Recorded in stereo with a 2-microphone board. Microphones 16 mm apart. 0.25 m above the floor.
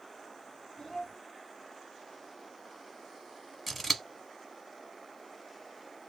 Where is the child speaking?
10° left (ahead or behind), 1.6 m.